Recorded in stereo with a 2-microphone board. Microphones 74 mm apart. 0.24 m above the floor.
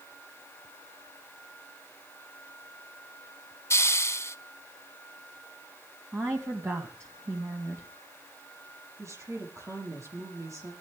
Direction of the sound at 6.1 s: 40° right (ahead or behind).